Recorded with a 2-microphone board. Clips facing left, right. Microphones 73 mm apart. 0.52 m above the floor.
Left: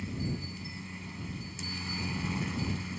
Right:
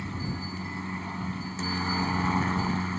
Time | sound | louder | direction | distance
0.0 | a helicopter | right 2 dB | 50° right (ahead or behind) | ?